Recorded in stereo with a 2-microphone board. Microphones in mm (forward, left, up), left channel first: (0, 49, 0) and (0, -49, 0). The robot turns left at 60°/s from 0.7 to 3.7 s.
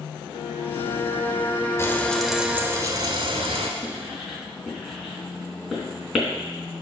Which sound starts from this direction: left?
A violin, at 0.3 s.